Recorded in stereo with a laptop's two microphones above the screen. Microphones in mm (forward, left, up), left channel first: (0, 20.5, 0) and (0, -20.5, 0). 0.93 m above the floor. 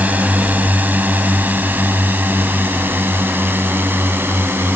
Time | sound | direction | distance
0.0 | a drone | 40° right (ahead or behind) | ?